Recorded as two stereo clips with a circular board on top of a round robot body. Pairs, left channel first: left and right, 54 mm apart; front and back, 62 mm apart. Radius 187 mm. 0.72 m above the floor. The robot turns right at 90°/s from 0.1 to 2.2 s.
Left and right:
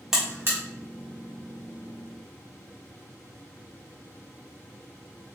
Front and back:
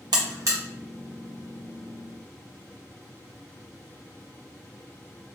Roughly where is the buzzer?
Behind.